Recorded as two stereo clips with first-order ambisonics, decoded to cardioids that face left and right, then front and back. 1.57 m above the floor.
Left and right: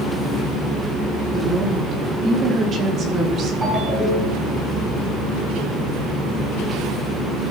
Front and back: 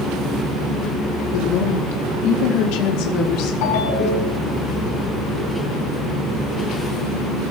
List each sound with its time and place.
1.3 s a woman speaking: 10° right, 4.5 m; by 3.5 s 30° right, 5 m
3.6 s a ringtone: 5° right, 7 m